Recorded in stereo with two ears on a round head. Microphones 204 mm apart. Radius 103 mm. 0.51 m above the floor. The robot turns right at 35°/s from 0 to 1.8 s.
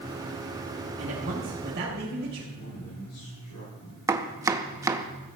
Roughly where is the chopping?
Centre.